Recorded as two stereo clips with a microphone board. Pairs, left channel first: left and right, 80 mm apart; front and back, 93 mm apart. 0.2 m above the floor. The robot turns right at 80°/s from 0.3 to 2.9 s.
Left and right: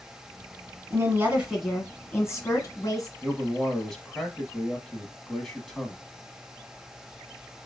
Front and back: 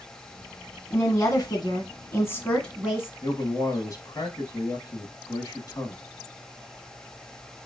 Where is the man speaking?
10° left, 1.2 m.